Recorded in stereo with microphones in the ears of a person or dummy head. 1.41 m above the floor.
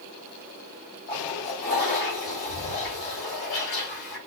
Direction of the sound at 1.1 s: 50° left (ahead or behind).